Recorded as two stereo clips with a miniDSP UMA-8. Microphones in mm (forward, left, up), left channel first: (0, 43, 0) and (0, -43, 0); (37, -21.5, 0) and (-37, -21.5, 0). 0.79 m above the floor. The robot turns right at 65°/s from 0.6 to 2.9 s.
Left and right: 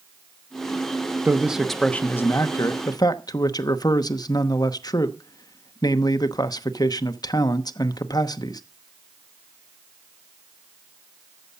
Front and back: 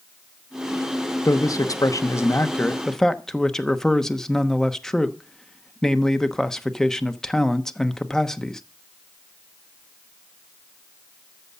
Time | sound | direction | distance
1.2 | a man speaking | 25° right | 1.0 m